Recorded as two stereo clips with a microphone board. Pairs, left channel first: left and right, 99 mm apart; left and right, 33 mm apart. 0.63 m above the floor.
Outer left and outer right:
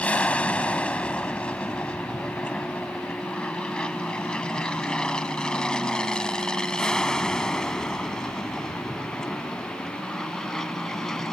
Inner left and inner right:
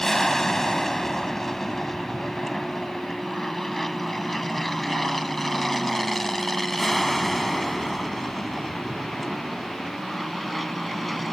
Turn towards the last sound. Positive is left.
turn(degrees=5)  # may be behind; listen again after turning